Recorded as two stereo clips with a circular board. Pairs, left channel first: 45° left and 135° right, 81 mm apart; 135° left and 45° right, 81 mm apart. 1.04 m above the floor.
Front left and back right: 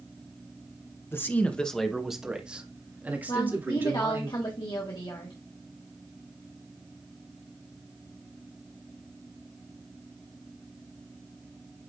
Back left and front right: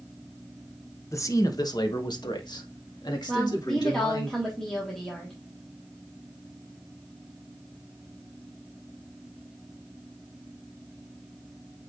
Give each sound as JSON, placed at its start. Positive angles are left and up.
{"t": 1.1, "sound": "a man speaking", "azimuth_deg": 95, "distance_m": 1.0}
{"t": 3.3, "sound": "a woman speaking", "azimuth_deg": 50, "distance_m": 1.8}